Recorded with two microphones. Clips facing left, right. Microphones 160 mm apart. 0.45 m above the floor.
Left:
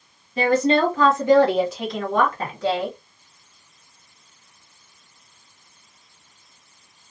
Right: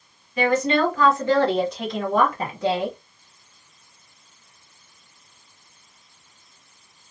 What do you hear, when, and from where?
0.4 s a woman speaking: 35° left (ahead or behind), 1.2 m; by 3.0 s 25° right (ahead or behind), 1.1 m